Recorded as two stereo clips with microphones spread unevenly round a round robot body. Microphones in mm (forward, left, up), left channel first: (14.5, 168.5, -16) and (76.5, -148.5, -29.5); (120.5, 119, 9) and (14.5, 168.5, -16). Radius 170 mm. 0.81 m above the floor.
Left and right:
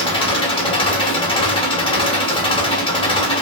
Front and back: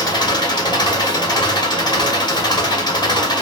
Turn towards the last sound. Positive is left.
turn(degrees=25)